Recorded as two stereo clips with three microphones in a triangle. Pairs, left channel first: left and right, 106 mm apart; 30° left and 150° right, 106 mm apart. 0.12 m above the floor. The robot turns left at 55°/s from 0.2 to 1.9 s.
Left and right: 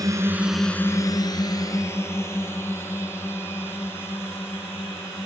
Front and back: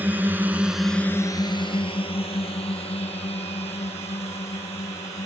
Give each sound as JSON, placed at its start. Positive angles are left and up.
{"t": 0.0, "sound": "a drone", "azimuth_deg": -90}